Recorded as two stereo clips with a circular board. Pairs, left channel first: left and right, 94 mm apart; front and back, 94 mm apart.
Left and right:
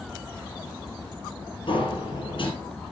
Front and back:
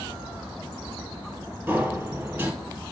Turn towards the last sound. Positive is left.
turn(degrees=110)